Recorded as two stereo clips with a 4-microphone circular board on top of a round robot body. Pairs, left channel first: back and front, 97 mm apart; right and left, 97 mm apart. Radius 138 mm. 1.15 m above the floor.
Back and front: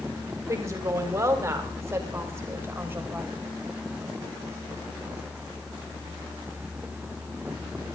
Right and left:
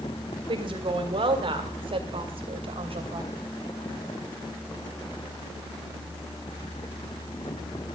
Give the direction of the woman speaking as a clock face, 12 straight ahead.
10 o'clock.